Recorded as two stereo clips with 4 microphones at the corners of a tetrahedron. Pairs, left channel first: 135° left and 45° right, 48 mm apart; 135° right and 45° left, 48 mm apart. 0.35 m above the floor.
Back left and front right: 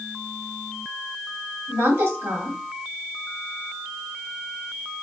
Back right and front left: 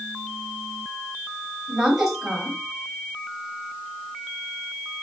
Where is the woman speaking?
40° right, 1.5 m.